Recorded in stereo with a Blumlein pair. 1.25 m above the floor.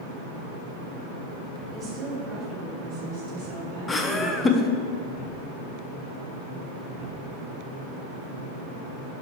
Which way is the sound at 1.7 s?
25° right.